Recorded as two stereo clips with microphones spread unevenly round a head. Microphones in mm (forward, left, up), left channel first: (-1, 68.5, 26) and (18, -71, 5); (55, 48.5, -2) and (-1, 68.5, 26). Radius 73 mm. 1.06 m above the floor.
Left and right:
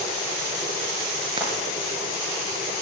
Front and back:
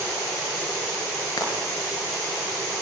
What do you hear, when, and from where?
1.4 s frying: 25° right, 7 m